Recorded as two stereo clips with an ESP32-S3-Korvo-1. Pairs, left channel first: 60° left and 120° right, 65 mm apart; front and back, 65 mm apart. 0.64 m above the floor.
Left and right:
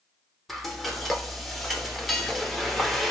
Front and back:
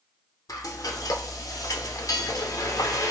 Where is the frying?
30° right, 0.7 m.